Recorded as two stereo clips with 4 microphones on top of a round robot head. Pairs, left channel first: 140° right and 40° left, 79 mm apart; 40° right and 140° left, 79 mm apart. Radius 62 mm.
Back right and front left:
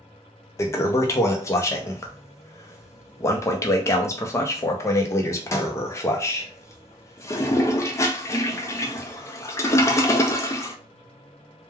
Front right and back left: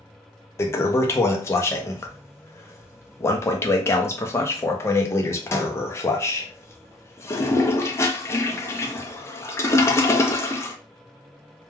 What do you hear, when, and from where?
0.6 s a toilet flushing: 90° right, 0.5 m